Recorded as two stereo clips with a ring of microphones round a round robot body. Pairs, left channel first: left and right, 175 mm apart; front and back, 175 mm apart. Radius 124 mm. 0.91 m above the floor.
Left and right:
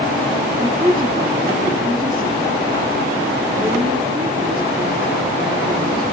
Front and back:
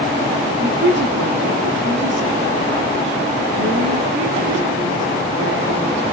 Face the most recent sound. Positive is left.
turn(degrees=-165)